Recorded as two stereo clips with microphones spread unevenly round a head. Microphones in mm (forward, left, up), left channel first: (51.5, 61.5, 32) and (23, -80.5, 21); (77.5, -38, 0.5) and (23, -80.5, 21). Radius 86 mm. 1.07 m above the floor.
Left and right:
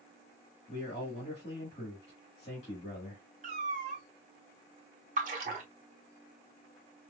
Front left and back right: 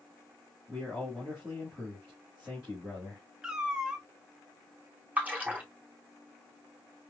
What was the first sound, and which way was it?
A man speaking, 130° left.